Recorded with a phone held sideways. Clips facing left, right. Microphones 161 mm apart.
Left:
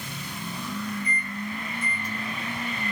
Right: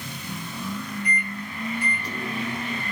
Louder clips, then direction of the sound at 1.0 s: Right 1 dB; 70° right (ahead or behind).